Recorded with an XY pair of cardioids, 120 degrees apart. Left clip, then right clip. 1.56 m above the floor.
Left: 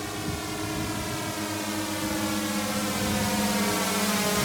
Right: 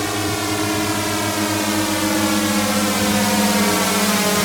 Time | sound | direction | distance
0.0 | a drone | 60° right | ?